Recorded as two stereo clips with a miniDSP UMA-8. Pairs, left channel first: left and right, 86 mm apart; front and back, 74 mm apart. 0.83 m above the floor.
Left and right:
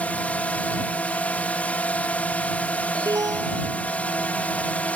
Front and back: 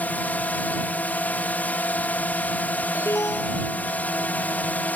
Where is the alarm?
45° right.